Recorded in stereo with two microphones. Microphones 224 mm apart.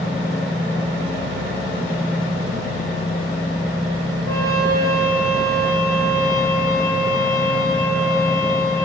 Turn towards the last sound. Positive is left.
turn(degrees=-70)  # may be behind; listen again after turning